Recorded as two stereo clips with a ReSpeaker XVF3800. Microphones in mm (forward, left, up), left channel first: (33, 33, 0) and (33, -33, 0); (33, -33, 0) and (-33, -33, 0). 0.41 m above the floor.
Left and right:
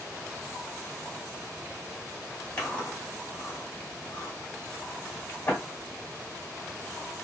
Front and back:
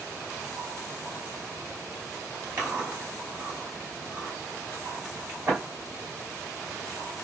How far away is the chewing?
About 2 m.